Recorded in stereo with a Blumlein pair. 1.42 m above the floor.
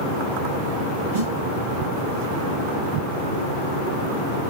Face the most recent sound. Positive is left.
turn(degrees=-60)